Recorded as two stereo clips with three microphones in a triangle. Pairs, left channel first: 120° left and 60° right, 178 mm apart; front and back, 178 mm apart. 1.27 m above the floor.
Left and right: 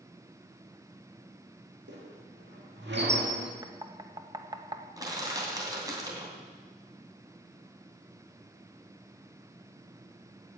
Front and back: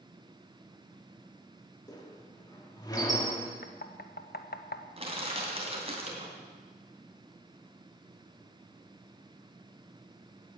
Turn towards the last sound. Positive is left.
turn(degrees=-130)